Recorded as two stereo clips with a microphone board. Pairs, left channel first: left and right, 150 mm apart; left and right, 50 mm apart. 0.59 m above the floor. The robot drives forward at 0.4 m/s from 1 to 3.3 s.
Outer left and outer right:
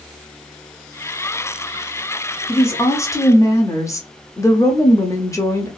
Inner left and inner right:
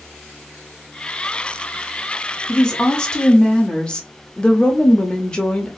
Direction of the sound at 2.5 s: 15° left (ahead or behind).